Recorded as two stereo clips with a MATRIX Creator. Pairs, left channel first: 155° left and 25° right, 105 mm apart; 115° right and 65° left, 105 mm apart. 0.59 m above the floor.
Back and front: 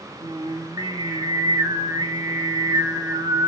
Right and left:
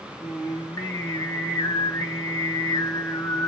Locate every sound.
0.2 s singing: 65° right, 0.8 m